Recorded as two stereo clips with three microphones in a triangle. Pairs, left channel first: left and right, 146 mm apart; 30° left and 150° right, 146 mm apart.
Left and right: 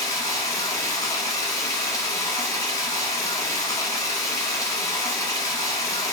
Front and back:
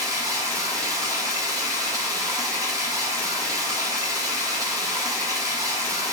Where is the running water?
150° left, 1.0 m.